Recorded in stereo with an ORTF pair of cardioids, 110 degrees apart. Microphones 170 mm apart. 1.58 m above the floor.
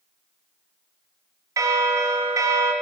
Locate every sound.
1.6 s a bell: 20° right, 0.7 m